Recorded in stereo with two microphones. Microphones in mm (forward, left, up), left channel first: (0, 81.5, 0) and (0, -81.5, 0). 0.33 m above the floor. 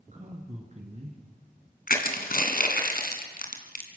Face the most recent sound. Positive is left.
turn(degrees=70)  # may be behind; listen again after turning